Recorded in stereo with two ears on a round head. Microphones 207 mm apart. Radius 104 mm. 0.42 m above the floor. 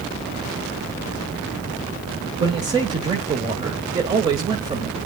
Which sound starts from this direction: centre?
A man speaking, at 2.4 s.